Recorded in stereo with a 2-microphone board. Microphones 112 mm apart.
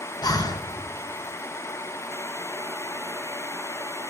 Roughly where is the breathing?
Left.